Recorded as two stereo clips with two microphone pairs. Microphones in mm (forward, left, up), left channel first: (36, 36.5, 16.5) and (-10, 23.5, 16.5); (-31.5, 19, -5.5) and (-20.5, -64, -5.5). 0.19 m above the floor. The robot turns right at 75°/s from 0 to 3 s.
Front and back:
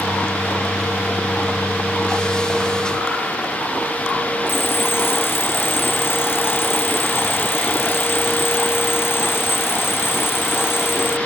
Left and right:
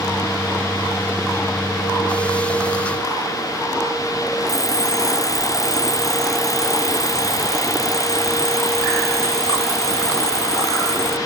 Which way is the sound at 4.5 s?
50° left.